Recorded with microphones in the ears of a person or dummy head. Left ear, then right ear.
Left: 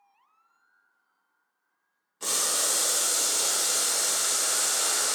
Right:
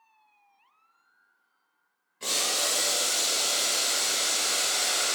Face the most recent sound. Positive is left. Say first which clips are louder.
# right 1 dB
turn(degrees=25)  # may be behind; listen again after turning